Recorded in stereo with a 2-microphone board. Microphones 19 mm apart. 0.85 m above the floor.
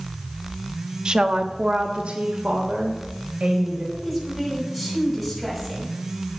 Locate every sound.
1.1 s a woman speaking: 35° right (ahead or behind), 1.0 m; by 3.8 s 75° right (ahead or behind), 4 m
3.9 s a woman speaking: 5° right (ahead or behind), 6 m